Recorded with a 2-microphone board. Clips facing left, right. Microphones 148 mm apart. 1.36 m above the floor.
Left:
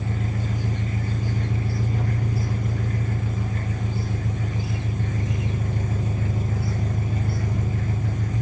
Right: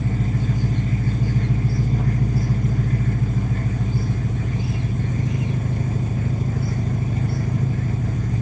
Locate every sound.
0.0 s an engine running: 40° right (ahead or behind), 1.0 m